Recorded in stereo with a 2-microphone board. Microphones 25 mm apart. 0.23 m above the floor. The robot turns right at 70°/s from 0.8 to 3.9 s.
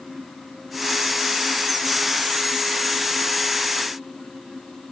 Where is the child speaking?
I don't hear a child speaking.